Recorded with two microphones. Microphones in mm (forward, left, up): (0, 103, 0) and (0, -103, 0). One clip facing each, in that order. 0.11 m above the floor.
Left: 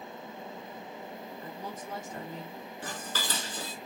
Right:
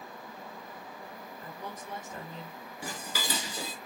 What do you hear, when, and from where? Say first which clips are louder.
1.4 s a woman speaking: even; 30° left (ahead or behind), 2.5 m
2.8 s dishes clattering: right 1 dB; 10° right (ahead or behind), 0.8 m